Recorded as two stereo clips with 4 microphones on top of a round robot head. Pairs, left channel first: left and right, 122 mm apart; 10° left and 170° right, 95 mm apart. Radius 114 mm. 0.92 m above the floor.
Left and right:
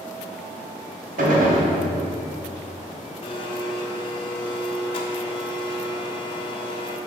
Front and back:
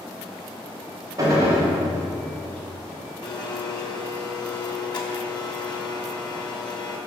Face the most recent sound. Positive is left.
turn(degrees=45)